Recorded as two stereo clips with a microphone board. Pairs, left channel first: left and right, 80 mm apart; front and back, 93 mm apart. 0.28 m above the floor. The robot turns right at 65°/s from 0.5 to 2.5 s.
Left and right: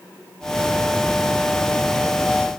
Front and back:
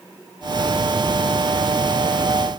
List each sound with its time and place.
Only background noise.